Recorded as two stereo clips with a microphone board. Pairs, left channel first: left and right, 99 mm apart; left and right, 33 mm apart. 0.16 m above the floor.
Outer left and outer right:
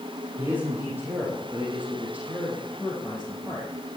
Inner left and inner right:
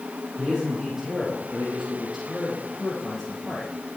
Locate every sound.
0.4 s a man speaking: 20° right (ahead or behind), 6 m; by 3.7 s 5° right (ahead or behind), 5 m